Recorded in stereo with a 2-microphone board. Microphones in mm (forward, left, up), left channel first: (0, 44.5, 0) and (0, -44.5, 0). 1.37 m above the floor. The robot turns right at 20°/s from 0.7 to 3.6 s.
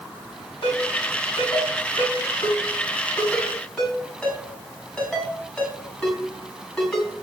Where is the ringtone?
65° left (ahead or behind), 6 m; by 7.1 s 10° left (ahead or behind), 6 m.